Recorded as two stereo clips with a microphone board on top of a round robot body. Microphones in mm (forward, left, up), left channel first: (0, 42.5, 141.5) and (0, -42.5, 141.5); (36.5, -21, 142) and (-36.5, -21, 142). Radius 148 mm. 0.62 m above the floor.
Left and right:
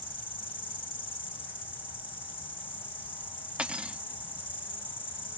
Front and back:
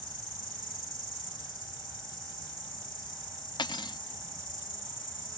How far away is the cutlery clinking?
About 0.8 m.